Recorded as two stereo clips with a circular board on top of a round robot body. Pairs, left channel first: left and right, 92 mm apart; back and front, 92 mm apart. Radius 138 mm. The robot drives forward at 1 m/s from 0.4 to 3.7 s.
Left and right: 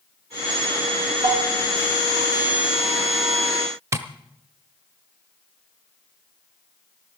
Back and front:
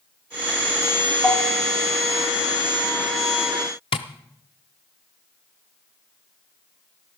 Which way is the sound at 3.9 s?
150° right.